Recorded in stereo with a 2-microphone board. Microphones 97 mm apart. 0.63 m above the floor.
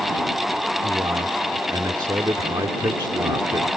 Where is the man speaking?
50° right (ahead or behind).